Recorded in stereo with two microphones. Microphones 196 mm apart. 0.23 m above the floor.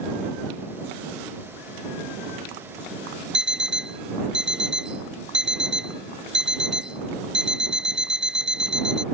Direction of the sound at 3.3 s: 75° right (ahead or behind).